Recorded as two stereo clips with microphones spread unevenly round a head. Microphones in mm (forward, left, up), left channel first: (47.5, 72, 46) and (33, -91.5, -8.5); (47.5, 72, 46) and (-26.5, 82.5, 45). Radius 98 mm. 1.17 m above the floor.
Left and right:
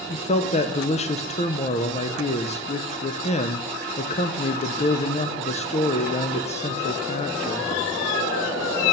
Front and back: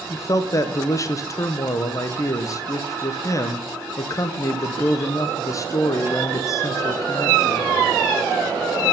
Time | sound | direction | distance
0.1 | a man speaking | 25° left | 0.9 m